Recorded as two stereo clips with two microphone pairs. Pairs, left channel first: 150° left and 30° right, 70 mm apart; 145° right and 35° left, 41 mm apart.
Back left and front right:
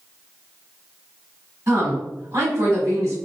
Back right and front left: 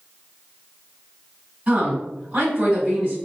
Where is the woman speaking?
10° left, 1.5 m.